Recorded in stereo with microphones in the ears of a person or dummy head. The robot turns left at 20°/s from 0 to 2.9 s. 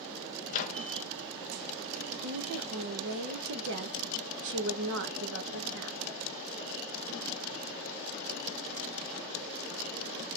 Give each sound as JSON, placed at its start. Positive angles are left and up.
{"t": 0.5, "sound": "a microwave", "side_deg": 45, "distance_m": 0.6}
{"t": 2.2, "sound": "a woman speaking", "side_deg": -75, "distance_m": 1.0}